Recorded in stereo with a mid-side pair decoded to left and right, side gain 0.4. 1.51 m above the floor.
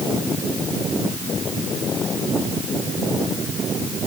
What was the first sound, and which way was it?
Only background noise.